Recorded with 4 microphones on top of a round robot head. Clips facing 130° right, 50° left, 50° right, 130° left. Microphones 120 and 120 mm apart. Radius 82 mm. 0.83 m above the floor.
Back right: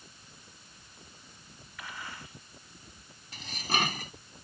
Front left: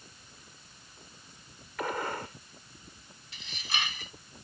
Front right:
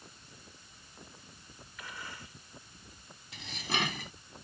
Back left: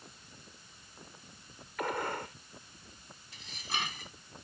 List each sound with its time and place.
1.8 s a gunshot: 95° left
3.3 s dishes clattering: 80° right